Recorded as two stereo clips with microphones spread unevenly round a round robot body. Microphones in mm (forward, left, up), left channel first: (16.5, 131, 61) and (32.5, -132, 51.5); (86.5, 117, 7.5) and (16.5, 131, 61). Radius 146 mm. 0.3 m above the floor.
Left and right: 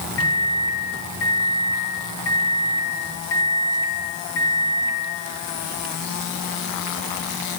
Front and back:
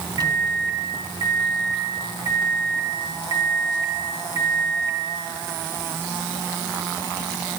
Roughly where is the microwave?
Behind left.